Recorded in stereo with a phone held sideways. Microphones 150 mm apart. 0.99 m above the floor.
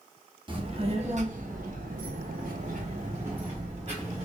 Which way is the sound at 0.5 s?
35° right (ahead or behind).